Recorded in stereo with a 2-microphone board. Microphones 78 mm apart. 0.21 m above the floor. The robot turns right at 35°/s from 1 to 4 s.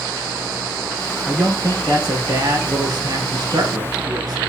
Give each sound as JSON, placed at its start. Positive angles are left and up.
{"t": 1.3, "sound": "a man speaking", "azimuth_deg": -155, "distance_m": 2.5}